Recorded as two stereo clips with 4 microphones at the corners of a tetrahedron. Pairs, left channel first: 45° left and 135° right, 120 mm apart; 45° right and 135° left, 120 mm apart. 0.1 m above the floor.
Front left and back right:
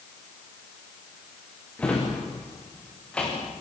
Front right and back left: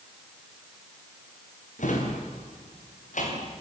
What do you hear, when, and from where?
1.8 s a drawer: 35° right, 6.5 m